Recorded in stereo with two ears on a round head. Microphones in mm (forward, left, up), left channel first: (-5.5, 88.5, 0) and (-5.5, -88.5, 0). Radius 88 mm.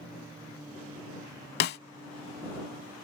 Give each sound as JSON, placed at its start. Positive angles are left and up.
{"t": 1.6, "sound": "a snare drum", "side_deg": 55}